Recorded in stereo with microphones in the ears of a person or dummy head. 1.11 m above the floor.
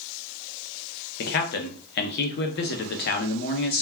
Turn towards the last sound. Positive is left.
turn(degrees=55)  # may be behind; listen again after turning